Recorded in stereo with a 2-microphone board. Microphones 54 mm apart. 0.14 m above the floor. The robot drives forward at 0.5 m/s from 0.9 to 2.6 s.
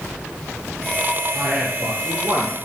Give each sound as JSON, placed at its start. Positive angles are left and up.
{"t": 1.3, "sound": "a man speaking", "side_deg": -35, "distance_m": 3.0}